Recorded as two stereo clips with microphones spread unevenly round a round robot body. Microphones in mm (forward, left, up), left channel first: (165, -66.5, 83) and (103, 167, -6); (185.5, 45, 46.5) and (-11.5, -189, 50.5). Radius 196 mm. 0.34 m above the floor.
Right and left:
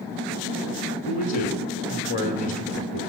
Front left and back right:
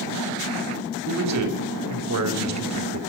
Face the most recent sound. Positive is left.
turn(degrees=-150)